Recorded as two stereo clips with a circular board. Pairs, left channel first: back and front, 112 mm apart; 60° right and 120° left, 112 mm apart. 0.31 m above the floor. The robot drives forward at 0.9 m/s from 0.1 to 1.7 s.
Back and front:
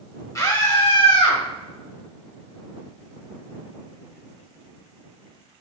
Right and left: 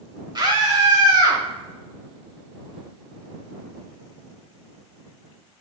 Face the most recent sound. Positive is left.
turn(degrees=165)